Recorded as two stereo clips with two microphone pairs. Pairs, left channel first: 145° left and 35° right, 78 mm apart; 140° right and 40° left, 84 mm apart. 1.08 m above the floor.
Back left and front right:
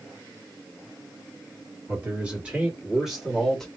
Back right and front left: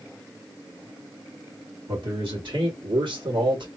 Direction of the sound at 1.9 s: 35° left.